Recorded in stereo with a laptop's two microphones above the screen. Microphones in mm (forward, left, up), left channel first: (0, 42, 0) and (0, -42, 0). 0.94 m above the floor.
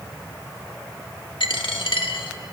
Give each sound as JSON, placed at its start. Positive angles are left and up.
{"t": 1.4, "sound": "a dropped coin", "side_deg": 80, "distance_m": 1.2}